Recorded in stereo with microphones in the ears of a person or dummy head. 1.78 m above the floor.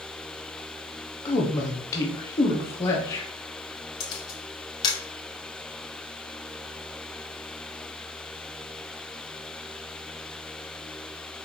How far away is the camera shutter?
About 1.1 m.